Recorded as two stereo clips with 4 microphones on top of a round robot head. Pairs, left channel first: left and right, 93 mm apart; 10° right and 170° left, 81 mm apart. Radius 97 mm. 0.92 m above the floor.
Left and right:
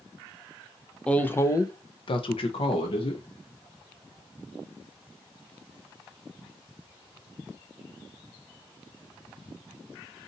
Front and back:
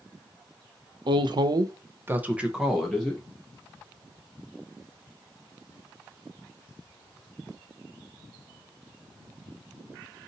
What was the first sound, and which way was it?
A woman speaking, 170° left.